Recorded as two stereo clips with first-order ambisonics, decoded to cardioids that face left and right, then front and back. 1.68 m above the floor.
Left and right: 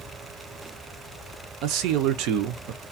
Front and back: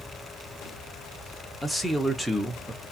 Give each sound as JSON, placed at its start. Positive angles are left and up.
{"t": 1.6, "sound": "a man speaking", "azimuth_deg": -95, "distance_m": 0.6}